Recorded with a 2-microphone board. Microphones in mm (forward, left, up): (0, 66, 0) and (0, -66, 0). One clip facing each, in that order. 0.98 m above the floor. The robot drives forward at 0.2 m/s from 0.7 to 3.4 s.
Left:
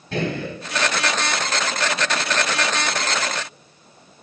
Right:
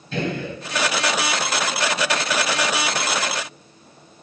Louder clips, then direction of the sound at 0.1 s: Left 1 dB; 65° left (ahead or behind).